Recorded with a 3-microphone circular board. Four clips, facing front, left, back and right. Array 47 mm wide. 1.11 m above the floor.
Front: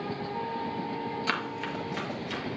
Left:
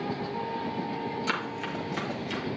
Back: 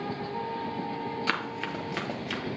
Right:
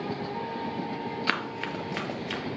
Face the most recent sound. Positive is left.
turn(degrees=-140)